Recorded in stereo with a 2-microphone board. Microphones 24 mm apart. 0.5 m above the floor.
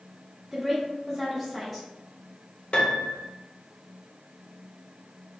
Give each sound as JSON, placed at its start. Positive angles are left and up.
{"t": 0.5, "sound": "a woman speaking", "side_deg": 5, "distance_m": 0.9}
{"t": 2.7, "sound": "a piano", "side_deg": 55, "distance_m": 0.5}